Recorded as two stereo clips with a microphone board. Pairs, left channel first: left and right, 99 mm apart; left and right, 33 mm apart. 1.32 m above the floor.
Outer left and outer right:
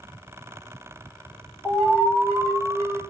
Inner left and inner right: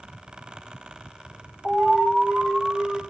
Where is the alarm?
10° left (ahead or behind), 2.5 m.